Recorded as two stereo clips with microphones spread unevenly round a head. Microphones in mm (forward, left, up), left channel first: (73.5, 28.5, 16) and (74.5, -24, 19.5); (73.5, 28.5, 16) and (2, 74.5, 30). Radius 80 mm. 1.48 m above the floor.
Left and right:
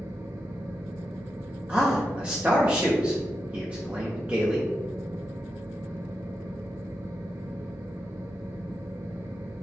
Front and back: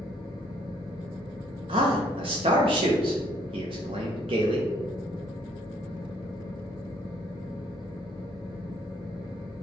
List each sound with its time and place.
0.0 s a fan: 90° right, 0.9 m
1.7 s a man speaking: 165° right, 0.7 m